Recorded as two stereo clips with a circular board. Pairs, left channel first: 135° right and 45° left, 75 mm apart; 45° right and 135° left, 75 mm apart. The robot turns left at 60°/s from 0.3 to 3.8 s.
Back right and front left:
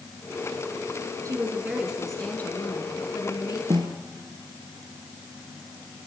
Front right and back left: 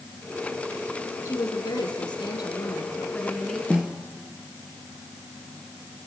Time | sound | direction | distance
1.2 | a woman speaking | 5° left | 4 m
3.7 | a snare drum | 60° left | 2.5 m